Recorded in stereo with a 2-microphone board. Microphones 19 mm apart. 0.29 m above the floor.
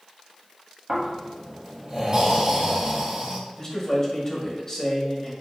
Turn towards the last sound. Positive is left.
turn(degrees=25)  # may be behind; listen again after turning